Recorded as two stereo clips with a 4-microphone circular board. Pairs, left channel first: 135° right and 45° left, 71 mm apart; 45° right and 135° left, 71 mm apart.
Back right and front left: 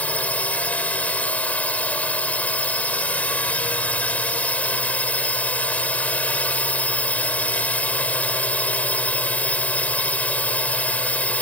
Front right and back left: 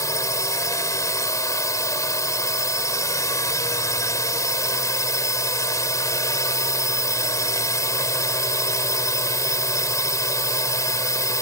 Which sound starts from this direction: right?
A drone, at 0.0 s.